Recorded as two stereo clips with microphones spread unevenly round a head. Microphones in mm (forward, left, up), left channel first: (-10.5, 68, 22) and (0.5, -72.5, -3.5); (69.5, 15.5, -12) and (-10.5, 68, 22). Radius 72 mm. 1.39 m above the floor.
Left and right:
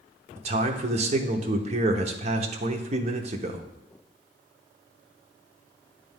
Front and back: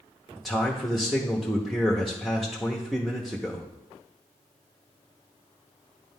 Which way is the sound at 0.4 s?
115° right.